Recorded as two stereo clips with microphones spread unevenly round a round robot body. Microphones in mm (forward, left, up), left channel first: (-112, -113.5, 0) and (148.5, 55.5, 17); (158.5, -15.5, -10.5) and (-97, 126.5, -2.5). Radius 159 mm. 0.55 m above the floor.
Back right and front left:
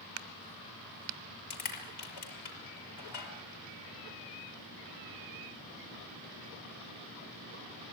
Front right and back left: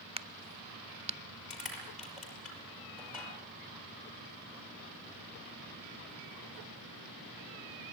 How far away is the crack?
About 0.8 m.